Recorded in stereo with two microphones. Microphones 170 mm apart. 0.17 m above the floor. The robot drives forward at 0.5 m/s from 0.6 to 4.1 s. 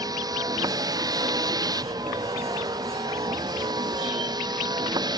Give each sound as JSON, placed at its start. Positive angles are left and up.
{"t": 0.0, "sound": "a vehicle", "side_deg": -20}